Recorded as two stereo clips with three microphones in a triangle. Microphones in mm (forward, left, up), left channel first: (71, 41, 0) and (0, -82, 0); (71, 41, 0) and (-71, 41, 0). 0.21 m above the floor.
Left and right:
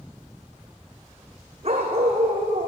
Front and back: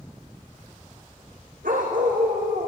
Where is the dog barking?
165° right, 3.5 m.